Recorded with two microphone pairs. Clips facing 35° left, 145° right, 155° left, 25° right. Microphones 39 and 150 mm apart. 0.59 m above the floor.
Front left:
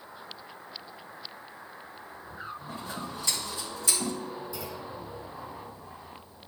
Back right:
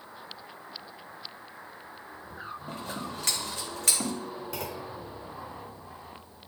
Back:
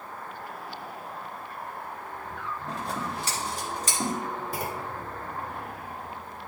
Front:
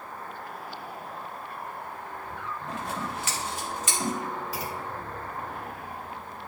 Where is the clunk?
165° right, 0.9 m.